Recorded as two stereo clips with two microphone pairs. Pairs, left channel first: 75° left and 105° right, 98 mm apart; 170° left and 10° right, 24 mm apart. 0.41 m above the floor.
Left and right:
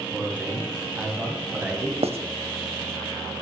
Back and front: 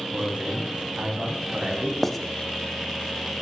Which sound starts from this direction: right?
Writing, at 2.0 s.